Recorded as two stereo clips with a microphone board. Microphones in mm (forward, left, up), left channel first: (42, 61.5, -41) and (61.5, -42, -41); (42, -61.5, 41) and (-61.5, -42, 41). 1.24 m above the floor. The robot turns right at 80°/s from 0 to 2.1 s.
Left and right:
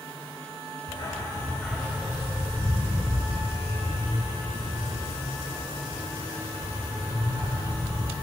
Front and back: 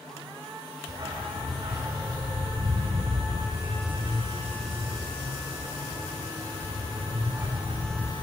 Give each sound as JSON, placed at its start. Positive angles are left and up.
{"t": 0.9, "sound": "a dog barking", "azimuth_deg": 120, "distance_m": 1.5}